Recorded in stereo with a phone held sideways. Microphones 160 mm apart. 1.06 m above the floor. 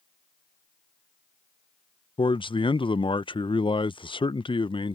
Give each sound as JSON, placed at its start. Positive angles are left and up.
{"t": 2.2, "sound": "a man speaking", "side_deg": 30}